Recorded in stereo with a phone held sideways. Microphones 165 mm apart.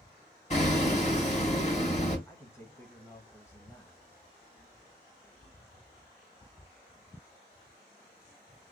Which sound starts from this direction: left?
Hammering, at 0.5 s.